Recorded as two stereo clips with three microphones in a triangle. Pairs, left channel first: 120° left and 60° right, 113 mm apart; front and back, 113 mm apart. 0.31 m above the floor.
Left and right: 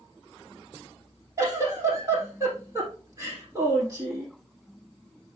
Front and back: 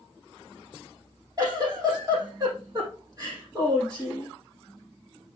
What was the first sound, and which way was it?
A giggle, 120° right.